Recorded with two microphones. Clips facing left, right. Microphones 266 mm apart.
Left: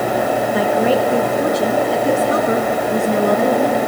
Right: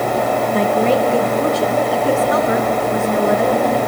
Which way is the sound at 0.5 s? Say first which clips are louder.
Right 1 dB; 5° left (ahead or behind).